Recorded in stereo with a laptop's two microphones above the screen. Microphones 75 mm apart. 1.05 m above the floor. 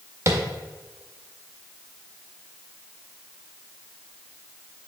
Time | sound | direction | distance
0.3 | tapping | 40° right (ahead or behind) | 1.8 m